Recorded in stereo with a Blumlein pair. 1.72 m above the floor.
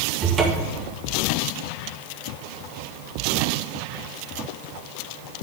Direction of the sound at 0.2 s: 25° right.